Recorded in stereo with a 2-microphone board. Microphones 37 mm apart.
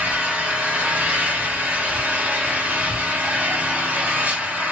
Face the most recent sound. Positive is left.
turn(degrees=-45)  # may be behind; listen again after turning